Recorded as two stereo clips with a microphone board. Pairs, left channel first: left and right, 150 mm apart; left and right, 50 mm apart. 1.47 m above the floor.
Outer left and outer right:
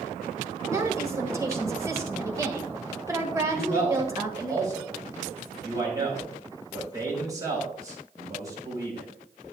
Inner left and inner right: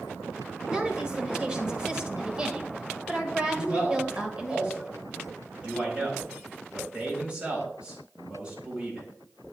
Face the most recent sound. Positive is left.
turn(degrees=-25)  # may be behind; listen again after turning